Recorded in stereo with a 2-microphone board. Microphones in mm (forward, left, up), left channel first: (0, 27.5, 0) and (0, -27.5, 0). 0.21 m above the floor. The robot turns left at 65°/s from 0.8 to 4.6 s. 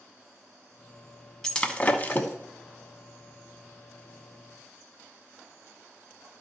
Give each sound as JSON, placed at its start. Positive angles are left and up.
{"t": 1.4, "sound": "breaking glass", "side_deg": 10, "distance_m": 1.0}